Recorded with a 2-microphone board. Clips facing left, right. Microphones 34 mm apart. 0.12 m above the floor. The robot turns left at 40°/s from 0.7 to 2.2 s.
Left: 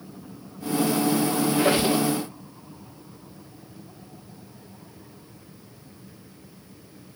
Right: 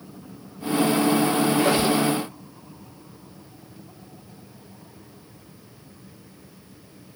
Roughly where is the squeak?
Left.